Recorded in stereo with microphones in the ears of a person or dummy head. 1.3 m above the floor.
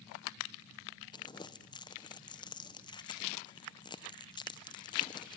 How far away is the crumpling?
About 0.8 m.